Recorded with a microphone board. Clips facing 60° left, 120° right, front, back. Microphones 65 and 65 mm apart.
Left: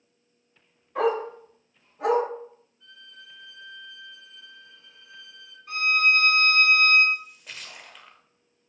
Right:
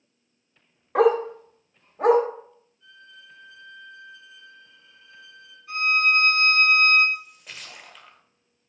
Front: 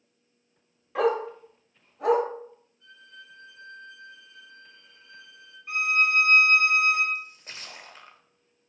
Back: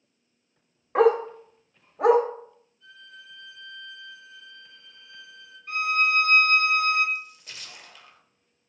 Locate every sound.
0.9 s a dog barking: 130° right, 0.8 m; by 2.2 s 175° right, 0.9 m
2.8 s a violin: 40° left, 1.8 m
5.7 s a violin: 80° left, 1.4 m
7.2 s a splash: 30° right, 0.5 m